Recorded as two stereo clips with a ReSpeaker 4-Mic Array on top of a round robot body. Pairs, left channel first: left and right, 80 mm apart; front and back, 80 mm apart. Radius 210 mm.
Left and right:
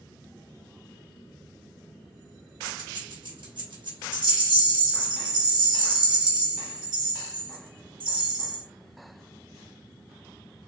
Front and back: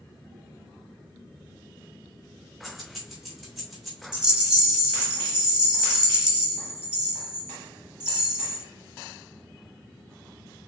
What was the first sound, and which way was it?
Keys jangling, 90° right.